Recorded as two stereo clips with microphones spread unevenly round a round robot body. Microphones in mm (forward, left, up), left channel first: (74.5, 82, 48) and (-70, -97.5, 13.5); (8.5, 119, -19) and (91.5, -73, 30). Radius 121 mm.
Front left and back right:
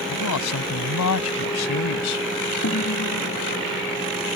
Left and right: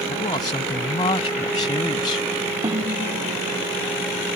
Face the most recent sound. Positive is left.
turn(degrees=5)